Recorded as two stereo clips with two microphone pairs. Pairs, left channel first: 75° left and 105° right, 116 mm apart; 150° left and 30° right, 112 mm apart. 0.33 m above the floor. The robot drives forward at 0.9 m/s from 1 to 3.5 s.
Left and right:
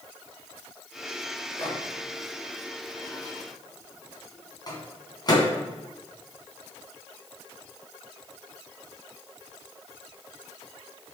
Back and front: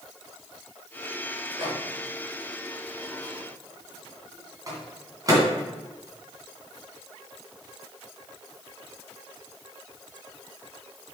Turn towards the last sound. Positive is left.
turn(degrees=25)